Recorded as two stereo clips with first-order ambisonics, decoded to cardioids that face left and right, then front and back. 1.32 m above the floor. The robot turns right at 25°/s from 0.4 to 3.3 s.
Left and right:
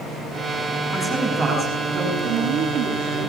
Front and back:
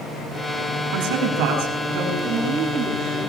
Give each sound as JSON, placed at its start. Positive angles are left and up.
{"t": 0.9, "sound": "a man speaking", "azimuth_deg": -170, "distance_m": 8.0}
{"t": 2.2, "sound": "a woman speaking", "azimuth_deg": -110, "distance_m": 9.5}